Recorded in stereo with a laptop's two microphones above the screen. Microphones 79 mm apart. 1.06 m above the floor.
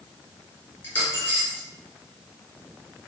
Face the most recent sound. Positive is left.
turn(degrees=30)  # may be behind; listen again after turning